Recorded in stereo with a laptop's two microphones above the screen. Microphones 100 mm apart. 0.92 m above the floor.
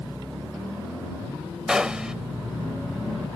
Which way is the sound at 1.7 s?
10° right (ahead or behind).